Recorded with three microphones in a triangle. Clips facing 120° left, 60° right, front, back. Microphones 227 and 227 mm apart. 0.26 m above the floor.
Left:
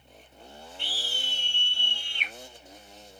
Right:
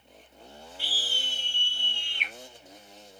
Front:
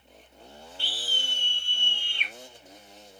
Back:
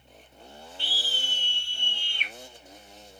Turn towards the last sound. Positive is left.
turn(degrees=-150)